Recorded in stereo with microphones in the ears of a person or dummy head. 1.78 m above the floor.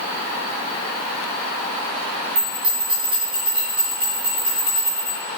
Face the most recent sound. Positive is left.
turn(degrees=-5)  # may be behind; listen again after turning